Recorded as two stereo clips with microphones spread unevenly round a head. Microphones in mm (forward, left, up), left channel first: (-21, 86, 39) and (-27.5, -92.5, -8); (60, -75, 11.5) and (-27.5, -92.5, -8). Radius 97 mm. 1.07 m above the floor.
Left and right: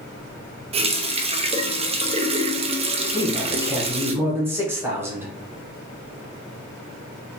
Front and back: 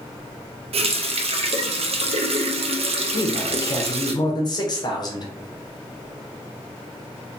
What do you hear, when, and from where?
0.7 s a running tap: 155° right, 0.5 m
3.1 s a man speaking: 30° right, 1.1 m